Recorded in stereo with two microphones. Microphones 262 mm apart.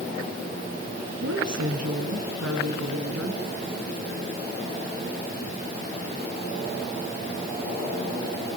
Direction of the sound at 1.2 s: 80° right.